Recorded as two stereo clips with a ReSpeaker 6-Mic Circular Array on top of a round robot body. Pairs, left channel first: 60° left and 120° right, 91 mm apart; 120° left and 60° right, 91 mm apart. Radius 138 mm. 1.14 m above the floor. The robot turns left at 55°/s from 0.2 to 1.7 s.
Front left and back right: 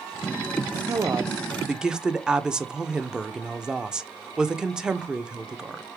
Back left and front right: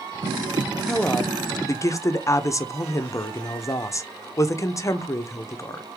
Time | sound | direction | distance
0.9 | a woman speaking | 155° right | 0.8 m